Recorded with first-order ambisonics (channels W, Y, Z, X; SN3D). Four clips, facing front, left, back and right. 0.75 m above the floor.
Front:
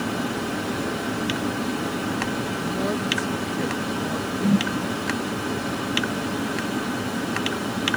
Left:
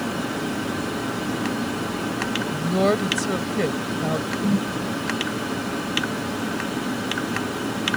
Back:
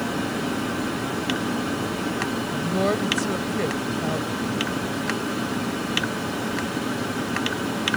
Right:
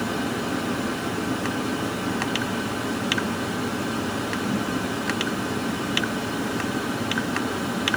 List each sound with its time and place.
2.5 s a woman speaking: 110° left
4.4 s a whoosh: 30° left